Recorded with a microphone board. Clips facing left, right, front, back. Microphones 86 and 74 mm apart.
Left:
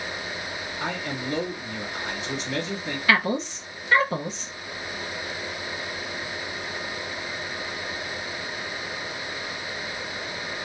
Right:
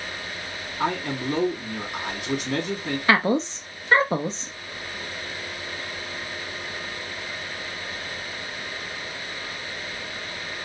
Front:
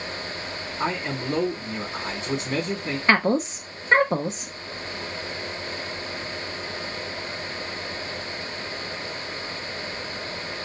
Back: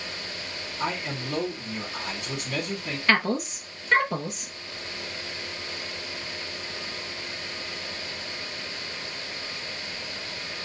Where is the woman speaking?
50° right, 0.7 m.